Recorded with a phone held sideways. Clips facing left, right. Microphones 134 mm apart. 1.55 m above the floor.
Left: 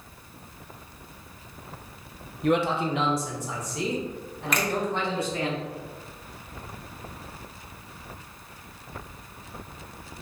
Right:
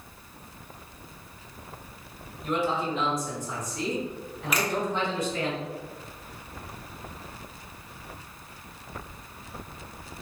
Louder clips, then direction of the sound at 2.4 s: Left 4 dB; 70° left (ahead or behind).